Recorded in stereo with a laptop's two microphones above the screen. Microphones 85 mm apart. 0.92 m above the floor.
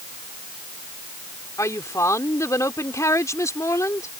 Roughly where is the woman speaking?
Left.